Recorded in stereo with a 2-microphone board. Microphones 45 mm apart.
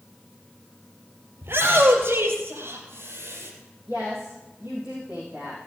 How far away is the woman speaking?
About 4 m.